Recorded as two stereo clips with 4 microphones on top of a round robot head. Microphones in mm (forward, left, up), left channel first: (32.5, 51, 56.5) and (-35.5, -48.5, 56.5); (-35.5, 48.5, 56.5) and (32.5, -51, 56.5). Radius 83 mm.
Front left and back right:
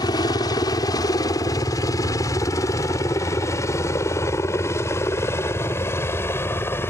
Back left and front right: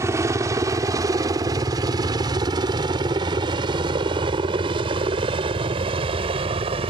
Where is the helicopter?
5° left; by 6.9 s 15° right.